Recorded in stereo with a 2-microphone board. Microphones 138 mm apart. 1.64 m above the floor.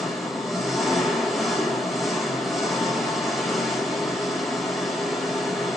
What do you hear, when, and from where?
0.0 s an engine running: centre (ahead or behind), 5.5 m